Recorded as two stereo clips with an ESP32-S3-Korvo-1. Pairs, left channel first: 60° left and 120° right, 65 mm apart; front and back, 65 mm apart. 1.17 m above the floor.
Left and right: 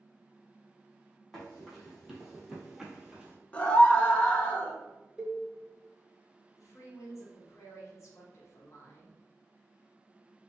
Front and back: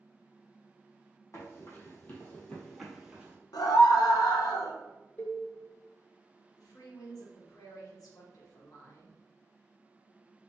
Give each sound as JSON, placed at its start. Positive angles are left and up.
{"t": 1.3, "sound": "running footsteps", "azimuth_deg": -25, "distance_m": 1.9}
{"t": 3.5, "sound": "a scream", "azimuth_deg": -10, "distance_m": 0.9}
{"t": 5.2, "sound": "a cowbell", "azimuth_deg": -50, "distance_m": 0.6}
{"t": 6.6, "sound": "a woman speaking", "azimuth_deg": 20, "distance_m": 1.3}